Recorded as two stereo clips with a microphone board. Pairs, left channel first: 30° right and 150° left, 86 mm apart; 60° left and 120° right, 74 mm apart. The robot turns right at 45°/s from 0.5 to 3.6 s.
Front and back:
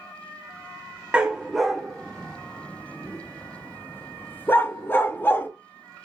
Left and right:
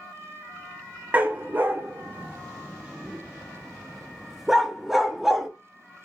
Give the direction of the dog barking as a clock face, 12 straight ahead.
5 o'clock.